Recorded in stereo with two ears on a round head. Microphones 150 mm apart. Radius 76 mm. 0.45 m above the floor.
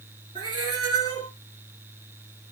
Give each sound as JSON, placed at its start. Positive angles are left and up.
{"t": 0.3, "sound": "a cat meowing", "side_deg": -30, "distance_m": 1.2}